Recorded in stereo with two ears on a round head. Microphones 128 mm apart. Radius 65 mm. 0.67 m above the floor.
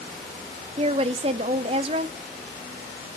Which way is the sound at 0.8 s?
40° right (ahead or behind).